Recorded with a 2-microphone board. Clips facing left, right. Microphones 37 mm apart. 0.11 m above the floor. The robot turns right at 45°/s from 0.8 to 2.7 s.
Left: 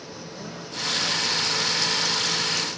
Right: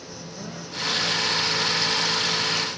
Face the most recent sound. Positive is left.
turn(degrees=120)